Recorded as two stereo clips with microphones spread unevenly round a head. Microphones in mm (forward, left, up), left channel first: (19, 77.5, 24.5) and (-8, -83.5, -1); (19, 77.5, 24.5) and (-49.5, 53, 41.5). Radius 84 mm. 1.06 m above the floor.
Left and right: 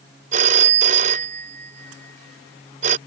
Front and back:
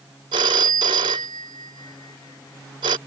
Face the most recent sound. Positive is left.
turn(degrees=-150)